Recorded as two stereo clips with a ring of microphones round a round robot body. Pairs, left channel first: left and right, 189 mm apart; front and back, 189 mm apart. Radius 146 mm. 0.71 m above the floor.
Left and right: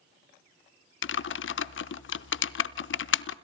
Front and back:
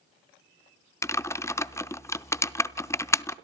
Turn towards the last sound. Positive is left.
turn(degrees=75)